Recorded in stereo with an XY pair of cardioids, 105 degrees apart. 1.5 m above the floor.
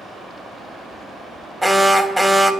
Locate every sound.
1.6 s an alarm: straight ahead, 0.6 m